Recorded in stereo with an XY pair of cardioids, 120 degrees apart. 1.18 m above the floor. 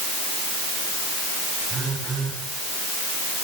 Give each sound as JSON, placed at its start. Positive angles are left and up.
{"t": 1.7, "sound": "a phone buzzing", "azimuth_deg": -35, "distance_m": 10.0}